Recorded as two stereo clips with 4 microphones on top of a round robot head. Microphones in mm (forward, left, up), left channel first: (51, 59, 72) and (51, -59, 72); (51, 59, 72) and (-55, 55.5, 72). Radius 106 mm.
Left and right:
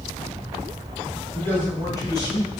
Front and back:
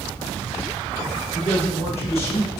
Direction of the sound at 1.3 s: 20° left.